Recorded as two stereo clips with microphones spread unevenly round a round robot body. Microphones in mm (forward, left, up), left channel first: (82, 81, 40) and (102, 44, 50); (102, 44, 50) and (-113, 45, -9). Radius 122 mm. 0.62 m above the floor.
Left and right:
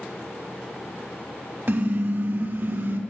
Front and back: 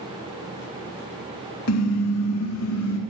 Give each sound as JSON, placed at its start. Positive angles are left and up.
{"t": 1.7, "sound": "a car horn", "azimuth_deg": -30, "distance_m": 2.0}